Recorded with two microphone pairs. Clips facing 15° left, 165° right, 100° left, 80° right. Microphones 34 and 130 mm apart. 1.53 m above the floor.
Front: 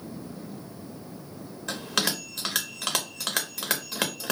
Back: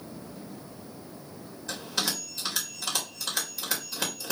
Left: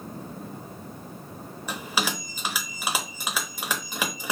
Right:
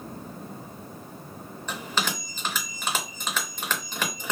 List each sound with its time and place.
1.7 s a bell: 15° left, 0.9 m